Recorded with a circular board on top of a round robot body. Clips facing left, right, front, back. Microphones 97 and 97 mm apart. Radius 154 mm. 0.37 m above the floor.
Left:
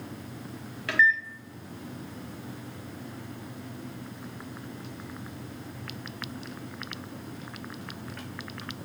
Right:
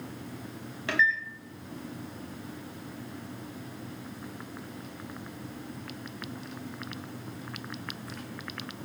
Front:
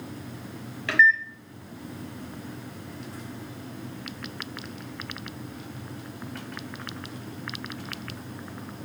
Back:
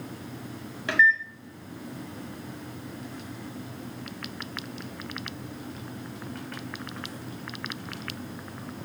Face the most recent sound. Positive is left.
turn(degrees=-135)